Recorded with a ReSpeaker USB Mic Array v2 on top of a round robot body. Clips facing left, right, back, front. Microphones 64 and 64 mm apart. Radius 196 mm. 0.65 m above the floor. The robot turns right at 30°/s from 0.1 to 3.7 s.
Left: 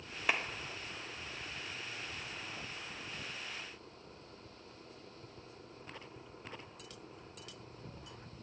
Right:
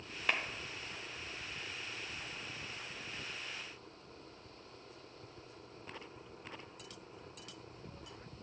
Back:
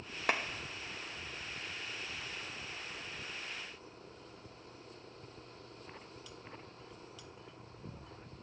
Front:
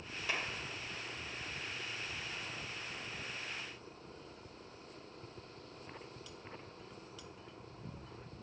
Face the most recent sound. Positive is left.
turn(degrees=-85)